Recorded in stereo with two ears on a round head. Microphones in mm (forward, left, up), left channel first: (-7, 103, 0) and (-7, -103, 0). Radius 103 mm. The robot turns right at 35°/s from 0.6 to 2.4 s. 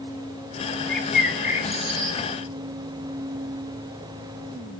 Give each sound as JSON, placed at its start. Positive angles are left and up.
{"t": 0.9, "sound": "a bird", "azimuth_deg": 175, "distance_m": 2.5}